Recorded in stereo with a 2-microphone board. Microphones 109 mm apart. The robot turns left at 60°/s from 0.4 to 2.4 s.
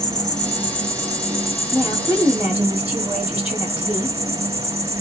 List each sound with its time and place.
0.0 s an insect: 5° left, 1.0 m; by 5.0 s 115° right, 1.0 m
1.7 s a woman speaking: 20° right (ahead or behind), 1.3 m; by 4.2 s 15° right (ahead or behind), 1.3 m